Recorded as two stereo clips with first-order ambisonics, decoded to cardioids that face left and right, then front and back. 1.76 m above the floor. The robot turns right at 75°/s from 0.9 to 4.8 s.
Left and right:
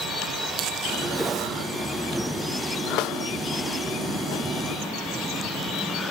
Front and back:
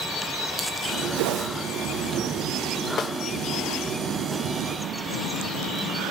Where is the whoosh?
Straight behind, 0.5 m; by 1.5 s 155° right, 0.5 m.